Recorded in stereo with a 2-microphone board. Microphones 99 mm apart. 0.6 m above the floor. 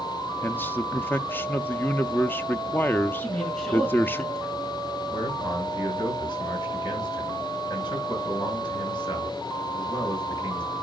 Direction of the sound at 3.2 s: 10° left (ahead or behind).